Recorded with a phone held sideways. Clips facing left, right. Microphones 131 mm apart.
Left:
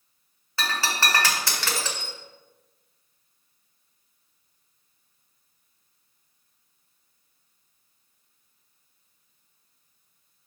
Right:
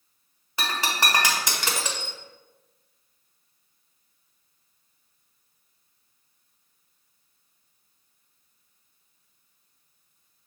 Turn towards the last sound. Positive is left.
turn(degrees=-15)  # may be behind; listen again after turning